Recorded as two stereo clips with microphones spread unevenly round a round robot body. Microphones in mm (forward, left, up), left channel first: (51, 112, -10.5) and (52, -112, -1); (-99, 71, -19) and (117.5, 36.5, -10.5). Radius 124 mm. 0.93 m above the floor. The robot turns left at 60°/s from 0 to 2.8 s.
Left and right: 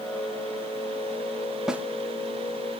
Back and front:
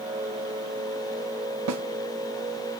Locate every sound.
1.7 s a snare drum: straight ahead, 1.0 m; by 1.8 s 10° right, 1.0 m